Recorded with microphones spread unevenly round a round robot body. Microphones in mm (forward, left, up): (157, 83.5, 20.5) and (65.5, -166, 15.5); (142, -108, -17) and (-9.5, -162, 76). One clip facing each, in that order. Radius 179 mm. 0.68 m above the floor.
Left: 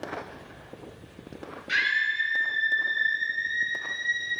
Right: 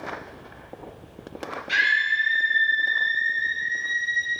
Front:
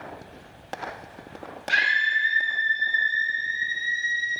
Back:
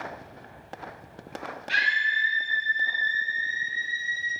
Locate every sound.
1.7 s a scream: straight ahead, 3.5 m; by 4.3 s 20° right, 5 m